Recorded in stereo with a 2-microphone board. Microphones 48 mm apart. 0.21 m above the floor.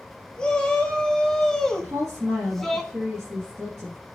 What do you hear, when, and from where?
0.4 s a shout: 15° left (ahead or behind), 1.0 m; by 2.8 s 5° left (ahead or behind), 1.5 m
1.8 s a woman speaking: 40° right (ahead or behind), 3.5 m